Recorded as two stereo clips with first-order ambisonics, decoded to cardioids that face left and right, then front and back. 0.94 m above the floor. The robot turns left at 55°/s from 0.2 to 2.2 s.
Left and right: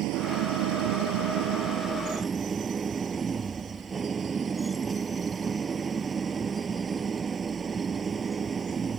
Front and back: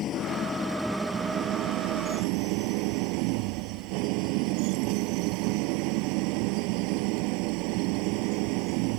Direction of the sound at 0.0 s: 50° right.